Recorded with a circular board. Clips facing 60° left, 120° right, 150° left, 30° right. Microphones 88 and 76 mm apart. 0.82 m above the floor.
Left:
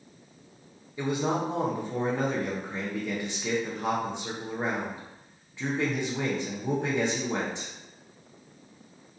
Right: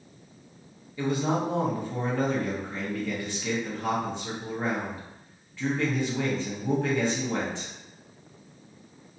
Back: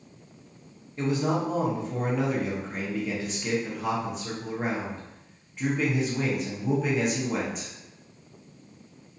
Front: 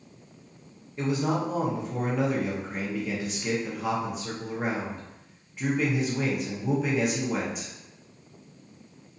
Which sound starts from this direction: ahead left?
A man speaking, at 1.0 s.